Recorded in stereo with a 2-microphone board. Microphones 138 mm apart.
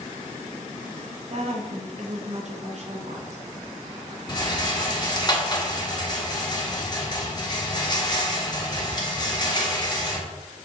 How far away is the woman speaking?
About 0.9 m.